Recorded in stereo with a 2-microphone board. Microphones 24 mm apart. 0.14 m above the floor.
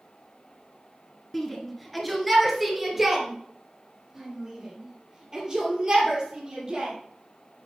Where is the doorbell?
No doorbell in this recording.